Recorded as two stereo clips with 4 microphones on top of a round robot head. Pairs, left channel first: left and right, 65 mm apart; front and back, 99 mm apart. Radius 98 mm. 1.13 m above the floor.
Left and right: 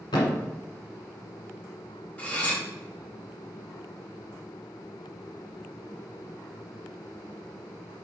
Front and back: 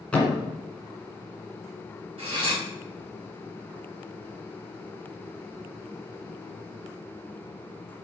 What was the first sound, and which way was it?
A thud, 80° left.